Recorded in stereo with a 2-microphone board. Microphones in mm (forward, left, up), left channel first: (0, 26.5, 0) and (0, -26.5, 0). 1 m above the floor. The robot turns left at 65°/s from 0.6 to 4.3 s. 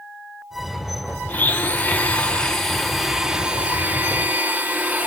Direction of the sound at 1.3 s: 30° left (ahead or behind).